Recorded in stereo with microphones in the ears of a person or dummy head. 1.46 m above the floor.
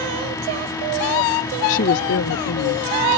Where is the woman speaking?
35° left (ahead or behind); by 2.9 s 80° left.